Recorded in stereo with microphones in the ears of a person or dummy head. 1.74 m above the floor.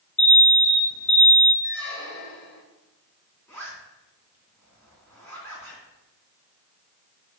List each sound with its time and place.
0.2 s an alarm: 5° left (ahead or behind), 1.5 m
1.6 s a squeak: 60° left (ahead or behind), 1.6 m
3.5 s a zipper: 10° left (ahead or behind), 3 m